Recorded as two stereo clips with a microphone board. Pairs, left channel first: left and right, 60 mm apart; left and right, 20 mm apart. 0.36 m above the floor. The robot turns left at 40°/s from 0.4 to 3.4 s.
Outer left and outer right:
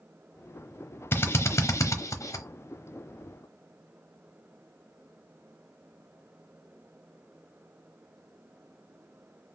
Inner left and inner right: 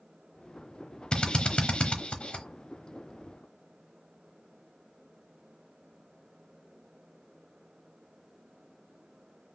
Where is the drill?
40° left (ahead or behind), 0.9 m; by 2.5 s 65° left (ahead or behind), 0.9 m.